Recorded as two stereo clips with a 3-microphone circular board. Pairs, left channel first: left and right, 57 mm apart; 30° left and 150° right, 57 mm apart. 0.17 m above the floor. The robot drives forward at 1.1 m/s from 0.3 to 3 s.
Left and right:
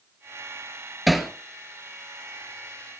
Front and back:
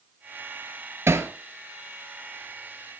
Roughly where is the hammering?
Behind.